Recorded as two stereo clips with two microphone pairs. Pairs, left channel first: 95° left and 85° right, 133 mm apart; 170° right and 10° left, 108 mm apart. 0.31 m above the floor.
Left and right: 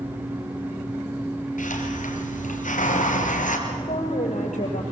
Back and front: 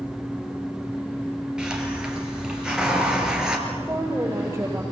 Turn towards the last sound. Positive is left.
turn(degrees=70)